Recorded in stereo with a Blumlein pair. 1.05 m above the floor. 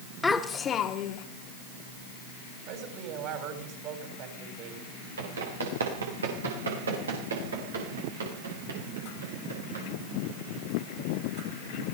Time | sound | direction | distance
0.2 | a child speaking | 10° left | 1.9 m
2.7 | a woman speaking | 40° right | 6.5 m
5.2 | running footsteps | 70° right | 5.5 m